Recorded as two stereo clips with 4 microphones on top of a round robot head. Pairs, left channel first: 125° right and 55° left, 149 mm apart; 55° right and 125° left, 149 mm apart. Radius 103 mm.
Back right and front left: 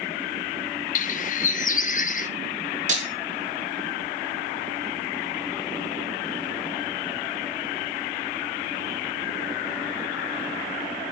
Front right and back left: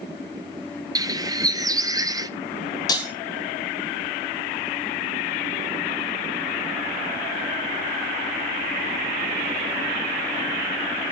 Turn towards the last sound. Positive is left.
turn(degrees=10)